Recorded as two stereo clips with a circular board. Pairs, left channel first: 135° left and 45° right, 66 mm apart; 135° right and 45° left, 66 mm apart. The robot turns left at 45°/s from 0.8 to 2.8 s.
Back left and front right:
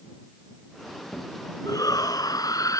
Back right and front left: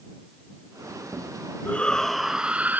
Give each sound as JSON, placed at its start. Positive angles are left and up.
{"t": 1.6, "sound": "a shout", "azimuth_deg": 160}